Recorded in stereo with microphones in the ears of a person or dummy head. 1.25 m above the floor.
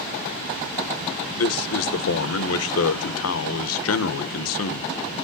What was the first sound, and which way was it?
A man speaking, 75° left (ahead or behind).